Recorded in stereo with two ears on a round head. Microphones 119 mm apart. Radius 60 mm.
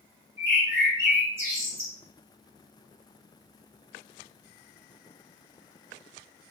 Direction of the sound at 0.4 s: 15° right (ahead or behind).